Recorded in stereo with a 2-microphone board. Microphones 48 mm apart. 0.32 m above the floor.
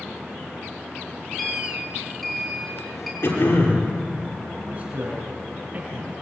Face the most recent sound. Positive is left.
turn(degrees=-30)  # may be behind; listen again after turning